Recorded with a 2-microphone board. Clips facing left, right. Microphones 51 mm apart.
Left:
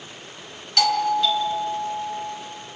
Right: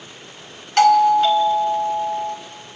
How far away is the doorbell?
About 2 m.